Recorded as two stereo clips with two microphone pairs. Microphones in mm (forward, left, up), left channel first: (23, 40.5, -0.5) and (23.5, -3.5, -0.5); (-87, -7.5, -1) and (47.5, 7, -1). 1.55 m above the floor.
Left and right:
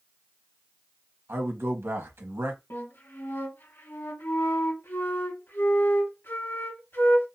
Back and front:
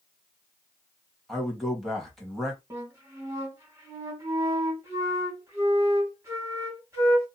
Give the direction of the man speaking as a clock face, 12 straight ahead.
3 o'clock.